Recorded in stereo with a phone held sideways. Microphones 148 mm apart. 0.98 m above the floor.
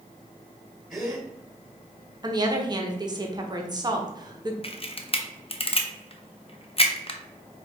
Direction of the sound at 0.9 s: 5° right (ahead or behind).